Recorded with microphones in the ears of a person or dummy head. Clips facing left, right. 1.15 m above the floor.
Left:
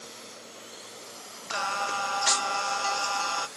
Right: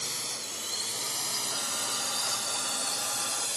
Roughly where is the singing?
Left.